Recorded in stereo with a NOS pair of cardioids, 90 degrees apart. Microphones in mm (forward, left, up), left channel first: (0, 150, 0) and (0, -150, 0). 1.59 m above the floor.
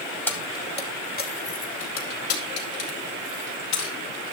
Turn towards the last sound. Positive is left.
turn(degrees=65)